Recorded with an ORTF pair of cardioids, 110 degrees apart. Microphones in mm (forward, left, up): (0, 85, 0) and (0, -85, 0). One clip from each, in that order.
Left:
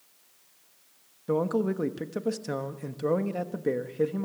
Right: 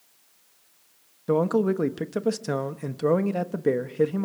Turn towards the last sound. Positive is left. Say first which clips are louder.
# right 4 dB
turn(degrees=-25)